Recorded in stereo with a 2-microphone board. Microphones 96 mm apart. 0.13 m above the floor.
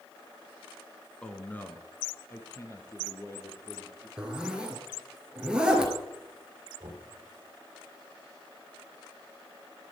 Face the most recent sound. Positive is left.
turn(degrees=-50)  # may be behind; listen again after turning